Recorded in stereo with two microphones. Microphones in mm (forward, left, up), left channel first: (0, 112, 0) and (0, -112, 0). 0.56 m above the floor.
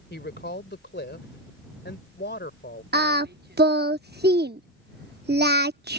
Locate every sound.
0.1 s a woman speaking: 50° left (ahead or behind)
2.9 s singing: 45° right (ahead or behind)